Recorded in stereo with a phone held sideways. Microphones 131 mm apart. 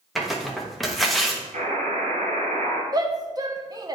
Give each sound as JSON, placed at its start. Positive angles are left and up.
{"t": 0.1, "sound": "tearing paper", "side_deg": 0, "distance_m": 1.1}
{"t": 1.5, "sound": "a buzzer", "side_deg": -75, "distance_m": 1.8}
{"t": 2.9, "sound": "a shout", "side_deg": -30, "distance_m": 0.9}